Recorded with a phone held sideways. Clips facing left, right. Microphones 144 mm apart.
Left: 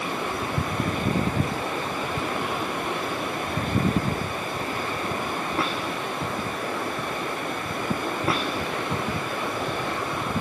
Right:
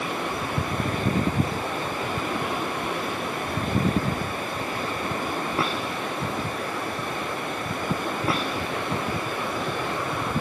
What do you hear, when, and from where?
Only background noise.